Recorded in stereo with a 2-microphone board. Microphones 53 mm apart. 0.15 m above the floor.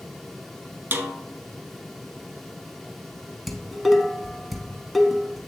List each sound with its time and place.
0.9 s a snare drum: 40° right (ahead or behind), 0.9 m
3.5 s dishes clattering: centre (ahead or behind), 0.9 m